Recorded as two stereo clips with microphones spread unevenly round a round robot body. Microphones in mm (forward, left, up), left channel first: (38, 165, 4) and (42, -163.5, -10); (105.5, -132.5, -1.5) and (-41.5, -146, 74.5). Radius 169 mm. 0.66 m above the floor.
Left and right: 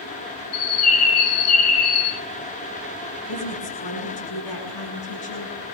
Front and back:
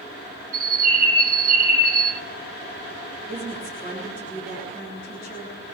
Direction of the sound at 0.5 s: 130° left.